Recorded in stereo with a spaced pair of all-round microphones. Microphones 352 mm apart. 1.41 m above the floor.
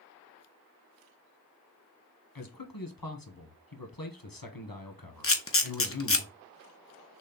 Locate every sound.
2.4 s a man speaking: 75° left (ahead or behind), 1.2 m
5.2 s a camera shutter: 40° left (ahead or behind), 0.7 m